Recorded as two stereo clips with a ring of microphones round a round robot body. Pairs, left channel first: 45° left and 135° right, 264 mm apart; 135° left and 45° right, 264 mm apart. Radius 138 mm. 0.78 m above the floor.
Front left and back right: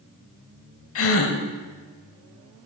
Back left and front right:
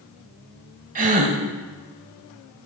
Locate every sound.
0.9 s a gasp: 15° left, 0.8 m